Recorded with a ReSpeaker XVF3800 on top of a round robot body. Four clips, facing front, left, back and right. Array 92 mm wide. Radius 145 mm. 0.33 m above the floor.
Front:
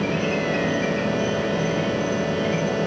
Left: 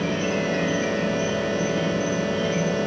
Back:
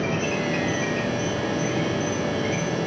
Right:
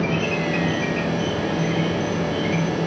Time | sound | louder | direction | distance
0.0 | an insect | right 1 dB, front 2 dB | 105° right | 1.1 m